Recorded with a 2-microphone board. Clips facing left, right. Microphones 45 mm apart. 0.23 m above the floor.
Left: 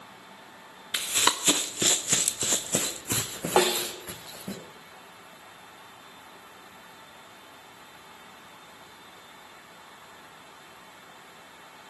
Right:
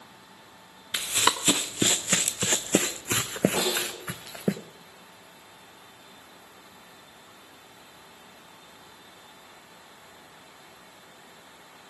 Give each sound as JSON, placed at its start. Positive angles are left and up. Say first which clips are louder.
{"t": 0.9, "sound": "running footsteps", "louder": "right 1 dB", "side_deg": 0, "distance_m": 1.1}
{"t": 3.6, "sound": "a snare drum", "louder": "left 5 dB", "side_deg": 90, "distance_m": 2.5}